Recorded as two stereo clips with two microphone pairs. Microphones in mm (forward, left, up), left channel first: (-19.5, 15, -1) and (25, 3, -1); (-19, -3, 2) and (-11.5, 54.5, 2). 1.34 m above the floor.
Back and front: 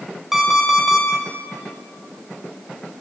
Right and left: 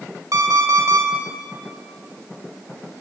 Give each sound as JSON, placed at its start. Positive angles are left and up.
{"t": 0.3, "sound": "an alarm clock", "azimuth_deg": 70, "distance_m": 3.0}